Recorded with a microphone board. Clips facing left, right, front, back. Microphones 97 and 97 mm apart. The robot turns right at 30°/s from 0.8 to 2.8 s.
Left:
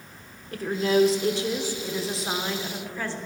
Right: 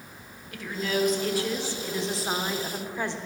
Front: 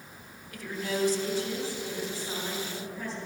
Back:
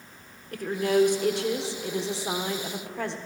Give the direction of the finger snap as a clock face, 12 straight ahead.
No finger snap in this recording.